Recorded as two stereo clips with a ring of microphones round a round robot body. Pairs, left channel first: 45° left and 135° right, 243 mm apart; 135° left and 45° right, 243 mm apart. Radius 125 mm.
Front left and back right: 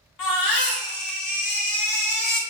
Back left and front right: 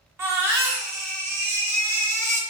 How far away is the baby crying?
About 1.0 m.